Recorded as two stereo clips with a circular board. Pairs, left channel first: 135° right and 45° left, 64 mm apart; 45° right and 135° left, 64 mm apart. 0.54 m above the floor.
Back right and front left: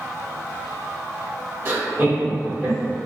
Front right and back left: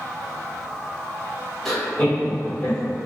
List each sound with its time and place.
1.6 s laughter: 35° left, 1.4 m; by 2.9 s 30° right, 2 m